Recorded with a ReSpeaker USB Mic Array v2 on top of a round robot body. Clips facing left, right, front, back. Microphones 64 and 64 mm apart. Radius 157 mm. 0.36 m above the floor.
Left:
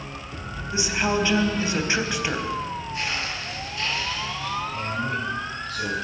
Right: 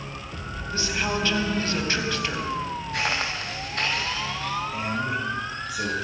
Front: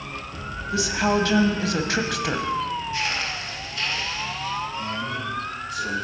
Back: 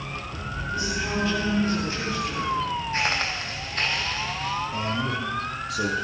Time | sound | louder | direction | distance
0.7 | a woman speaking | left 3 dB, front 7 dB | 15° left | 3.5 m
2.9 | footsteps | right 6 dB, back 1 dB | 120° right | 5.5 m
4.7 | a man speaking | even, back 1 dB | 170° right | 8.5 m